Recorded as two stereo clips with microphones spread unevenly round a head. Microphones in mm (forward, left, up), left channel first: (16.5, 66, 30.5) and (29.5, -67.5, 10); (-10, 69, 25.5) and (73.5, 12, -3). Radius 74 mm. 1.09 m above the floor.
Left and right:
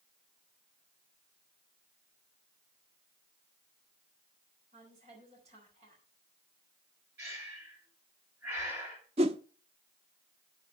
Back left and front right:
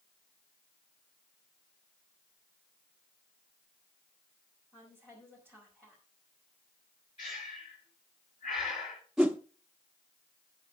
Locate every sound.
4.7 s a woman speaking: 135° right, 4.5 m
7.2 s breathing: 155° right, 5.5 m
9.2 s a whoosh: 135° right, 0.7 m